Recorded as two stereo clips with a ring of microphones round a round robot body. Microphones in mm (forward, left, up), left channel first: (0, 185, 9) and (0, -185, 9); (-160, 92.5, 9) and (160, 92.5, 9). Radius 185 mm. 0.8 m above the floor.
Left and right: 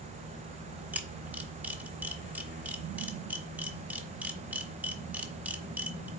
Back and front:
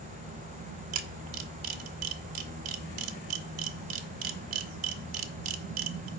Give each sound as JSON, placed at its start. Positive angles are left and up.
{"t": 0.9, "sound": "a camera shutter", "azimuth_deg": -5, "distance_m": 0.9}